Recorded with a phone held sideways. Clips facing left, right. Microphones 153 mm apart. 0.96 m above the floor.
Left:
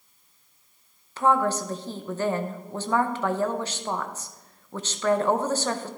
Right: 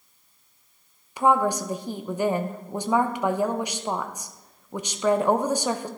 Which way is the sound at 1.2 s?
15° right (ahead or behind).